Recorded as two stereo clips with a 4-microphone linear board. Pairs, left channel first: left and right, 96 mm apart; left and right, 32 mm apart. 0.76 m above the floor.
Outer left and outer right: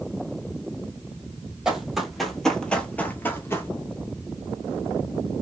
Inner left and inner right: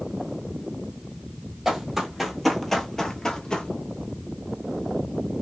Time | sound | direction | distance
1.6 | running footsteps | 5° right (ahead or behind) | 1.1 m